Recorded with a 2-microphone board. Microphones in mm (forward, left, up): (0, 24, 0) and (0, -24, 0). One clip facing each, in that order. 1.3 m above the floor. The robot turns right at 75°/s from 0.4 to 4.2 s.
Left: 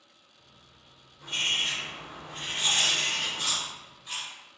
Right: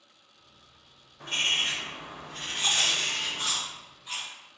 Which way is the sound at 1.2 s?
80° right.